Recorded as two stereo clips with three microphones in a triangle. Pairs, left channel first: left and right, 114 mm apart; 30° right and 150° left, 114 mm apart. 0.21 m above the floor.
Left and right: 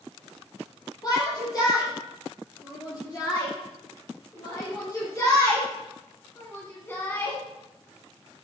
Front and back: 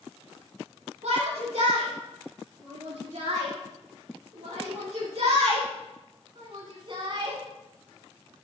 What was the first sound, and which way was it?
A shout, 145° left.